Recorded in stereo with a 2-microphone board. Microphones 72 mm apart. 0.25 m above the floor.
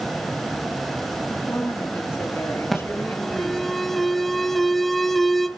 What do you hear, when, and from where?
1.3 s a woman speaking: 35° left (ahead or behind), 4 m
2.7 s an alarm: 5° left (ahead or behind), 0.8 m